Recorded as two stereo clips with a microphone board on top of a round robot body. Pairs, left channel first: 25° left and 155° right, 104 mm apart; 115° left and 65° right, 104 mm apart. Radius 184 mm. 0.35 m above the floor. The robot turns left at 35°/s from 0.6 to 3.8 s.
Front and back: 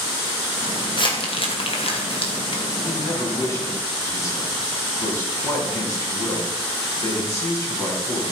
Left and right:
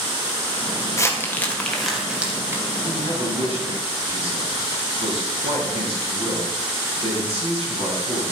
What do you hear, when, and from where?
1.0 s crumpling: 55° left, 2.5 m; by 2.6 s straight ahead, 2.5 m
2.9 s a man speaking: 10° right, 5.5 m; by 8.3 s 40° right, 5.5 m